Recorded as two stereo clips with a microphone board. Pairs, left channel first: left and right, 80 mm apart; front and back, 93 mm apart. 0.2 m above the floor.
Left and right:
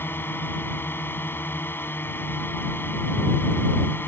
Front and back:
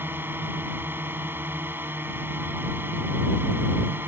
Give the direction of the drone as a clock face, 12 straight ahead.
8 o'clock.